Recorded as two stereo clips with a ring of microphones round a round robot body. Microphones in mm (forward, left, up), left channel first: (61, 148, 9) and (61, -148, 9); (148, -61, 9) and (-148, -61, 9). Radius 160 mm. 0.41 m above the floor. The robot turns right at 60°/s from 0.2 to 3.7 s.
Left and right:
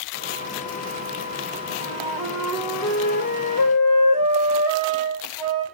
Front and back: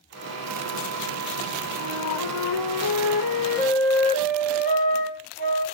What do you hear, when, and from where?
1.8 s a flute: 45° right, 4.5 m; by 5.6 s 70° left, 4.5 m